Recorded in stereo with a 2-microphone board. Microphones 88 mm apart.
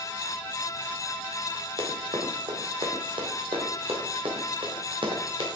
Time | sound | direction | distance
1.8 | running footsteps | 65° right (ahead or behind) | 2.5 m